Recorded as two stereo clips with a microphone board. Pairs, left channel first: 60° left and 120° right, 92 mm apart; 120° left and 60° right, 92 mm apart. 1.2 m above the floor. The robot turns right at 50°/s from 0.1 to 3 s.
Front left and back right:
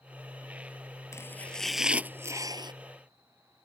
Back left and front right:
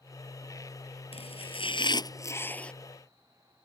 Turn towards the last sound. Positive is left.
turn(degrees=-145)